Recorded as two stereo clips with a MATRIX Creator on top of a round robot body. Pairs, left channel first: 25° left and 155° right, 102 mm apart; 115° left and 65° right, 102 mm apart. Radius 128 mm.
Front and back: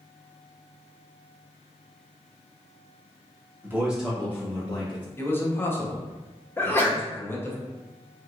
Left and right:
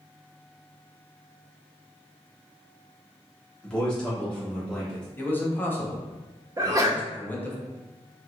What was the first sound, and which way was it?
A man speaking, 175° right.